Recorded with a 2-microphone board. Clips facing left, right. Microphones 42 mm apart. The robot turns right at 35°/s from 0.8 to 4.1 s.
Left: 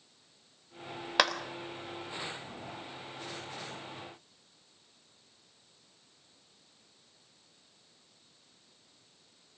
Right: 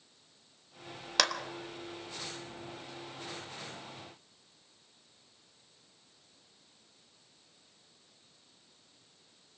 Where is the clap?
15° left (ahead or behind), 1.1 m; by 1.3 s 10° left (ahead or behind), 1.1 m.